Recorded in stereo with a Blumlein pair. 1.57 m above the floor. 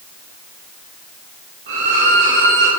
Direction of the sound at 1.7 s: 55° right.